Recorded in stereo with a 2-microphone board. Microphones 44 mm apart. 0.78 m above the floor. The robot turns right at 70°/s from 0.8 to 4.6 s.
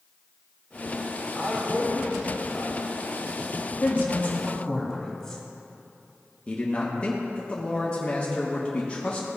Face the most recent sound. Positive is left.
turn(degrees=30)  # may be behind; listen again after turning